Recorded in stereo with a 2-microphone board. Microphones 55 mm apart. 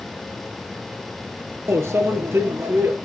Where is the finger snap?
I don't hear a finger snap.